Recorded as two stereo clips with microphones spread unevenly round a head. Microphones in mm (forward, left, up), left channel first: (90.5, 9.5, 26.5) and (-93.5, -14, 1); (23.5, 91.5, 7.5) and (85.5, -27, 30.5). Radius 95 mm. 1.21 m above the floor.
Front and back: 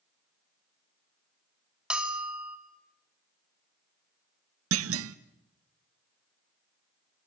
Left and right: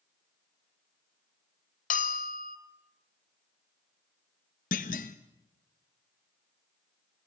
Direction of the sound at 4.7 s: 170° left.